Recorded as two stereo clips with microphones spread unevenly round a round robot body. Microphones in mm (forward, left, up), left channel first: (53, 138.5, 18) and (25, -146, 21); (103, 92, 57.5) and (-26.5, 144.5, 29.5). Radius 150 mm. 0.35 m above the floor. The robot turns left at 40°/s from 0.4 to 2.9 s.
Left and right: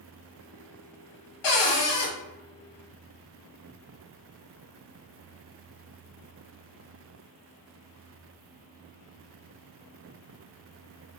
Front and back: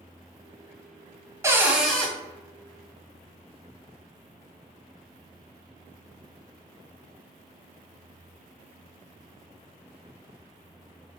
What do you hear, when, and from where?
1.4 s a cupboard door: 90° left, 0.9 m; by 2.1 s 60° left, 0.9 m